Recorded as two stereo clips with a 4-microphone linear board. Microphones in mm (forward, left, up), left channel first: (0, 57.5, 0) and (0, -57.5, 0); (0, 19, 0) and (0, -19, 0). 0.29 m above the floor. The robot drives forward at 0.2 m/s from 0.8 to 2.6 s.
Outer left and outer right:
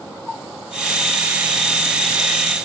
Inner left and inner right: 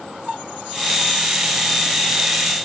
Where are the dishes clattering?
I don't hear dishes clattering.